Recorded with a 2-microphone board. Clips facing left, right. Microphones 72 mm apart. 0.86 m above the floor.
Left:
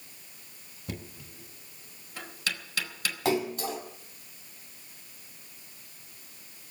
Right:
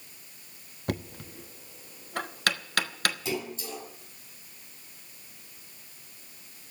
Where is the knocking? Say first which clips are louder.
Right 7 dB; 60° right (ahead or behind), 1.0 m.